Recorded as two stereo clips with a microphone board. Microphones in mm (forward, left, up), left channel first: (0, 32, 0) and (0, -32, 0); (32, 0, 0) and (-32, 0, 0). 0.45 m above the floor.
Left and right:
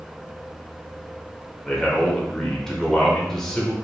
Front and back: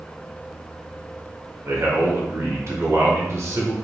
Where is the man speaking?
170° left, 1.2 m.